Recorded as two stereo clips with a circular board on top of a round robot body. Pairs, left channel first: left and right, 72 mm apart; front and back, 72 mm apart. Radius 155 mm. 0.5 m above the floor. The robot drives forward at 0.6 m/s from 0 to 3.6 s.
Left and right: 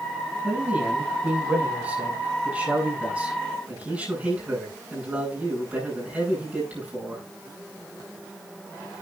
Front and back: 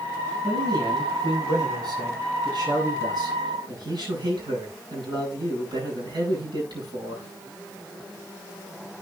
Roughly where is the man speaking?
Behind.